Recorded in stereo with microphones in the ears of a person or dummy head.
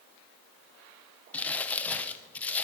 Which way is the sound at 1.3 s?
10° left (ahead or behind).